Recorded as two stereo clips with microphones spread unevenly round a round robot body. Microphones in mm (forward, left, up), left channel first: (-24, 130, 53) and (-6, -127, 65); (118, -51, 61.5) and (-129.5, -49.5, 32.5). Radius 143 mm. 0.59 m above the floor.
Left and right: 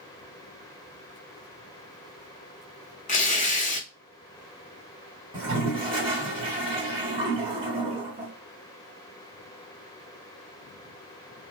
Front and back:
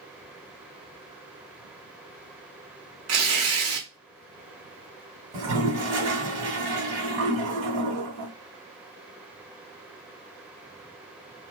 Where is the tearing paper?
155° left, 0.8 m.